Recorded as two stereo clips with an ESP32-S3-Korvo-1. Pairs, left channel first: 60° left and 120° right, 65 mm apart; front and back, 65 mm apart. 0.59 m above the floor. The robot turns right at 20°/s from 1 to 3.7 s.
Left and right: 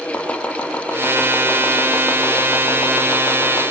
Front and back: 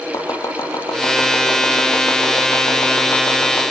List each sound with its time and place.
0.1 s chopping: 10° right, 5.5 m; by 3.6 s 45° left, 5.5 m